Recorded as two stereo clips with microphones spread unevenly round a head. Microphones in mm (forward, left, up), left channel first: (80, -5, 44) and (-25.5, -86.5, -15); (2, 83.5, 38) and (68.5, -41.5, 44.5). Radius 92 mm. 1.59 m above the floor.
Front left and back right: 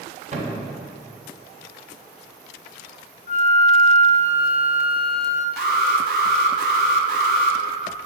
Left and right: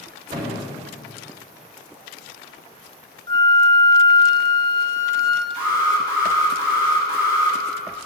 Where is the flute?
55° left, 0.5 m.